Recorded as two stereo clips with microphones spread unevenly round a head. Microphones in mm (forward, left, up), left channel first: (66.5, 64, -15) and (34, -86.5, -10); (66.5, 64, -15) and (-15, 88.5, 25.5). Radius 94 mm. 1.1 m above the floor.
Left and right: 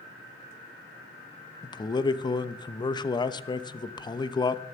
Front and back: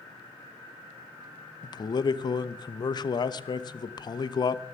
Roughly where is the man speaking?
Ahead.